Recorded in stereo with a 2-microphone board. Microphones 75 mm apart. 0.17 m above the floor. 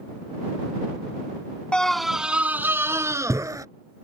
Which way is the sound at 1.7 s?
15° left (ahead or behind).